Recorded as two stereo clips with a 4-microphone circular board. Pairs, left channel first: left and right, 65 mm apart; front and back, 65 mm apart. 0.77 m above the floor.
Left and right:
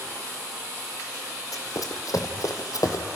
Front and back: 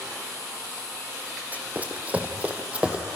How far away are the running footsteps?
About 2.5 m.